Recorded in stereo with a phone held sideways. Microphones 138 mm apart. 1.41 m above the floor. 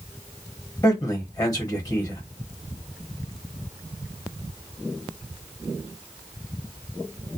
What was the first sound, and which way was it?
A man speaking, 25° left (ahead or behind).